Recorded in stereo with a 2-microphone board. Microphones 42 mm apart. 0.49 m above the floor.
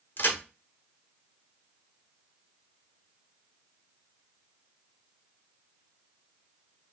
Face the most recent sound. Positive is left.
turn(degrees=45)  # may be behind; listen again after turning